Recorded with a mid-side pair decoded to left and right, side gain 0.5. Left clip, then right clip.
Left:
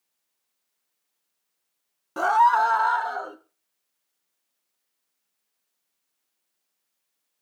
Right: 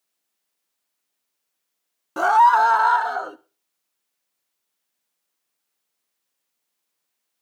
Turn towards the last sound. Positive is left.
turn(degrees=-30)